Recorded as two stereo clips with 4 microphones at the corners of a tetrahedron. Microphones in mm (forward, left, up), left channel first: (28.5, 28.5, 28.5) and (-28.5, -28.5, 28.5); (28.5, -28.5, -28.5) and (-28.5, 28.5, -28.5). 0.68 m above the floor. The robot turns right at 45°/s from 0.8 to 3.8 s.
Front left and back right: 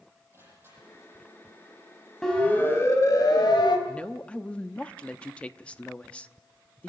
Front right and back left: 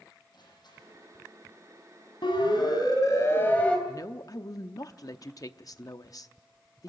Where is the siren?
40° right, 4.5 m; by 3.8 s 35° left, 3 m.